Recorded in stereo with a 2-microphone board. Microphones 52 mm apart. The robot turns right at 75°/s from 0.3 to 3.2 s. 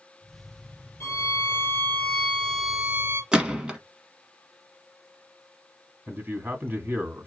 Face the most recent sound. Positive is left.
turn(degrees=-40)  # may be behind; listen again after turning